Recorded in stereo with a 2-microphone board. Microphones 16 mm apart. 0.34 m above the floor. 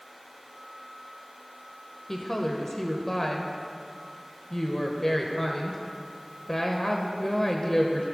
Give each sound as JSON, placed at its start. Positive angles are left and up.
{"t": 2.1, "sound": "a woman speaking", "side_deg": 30, "distance_m": 1.0}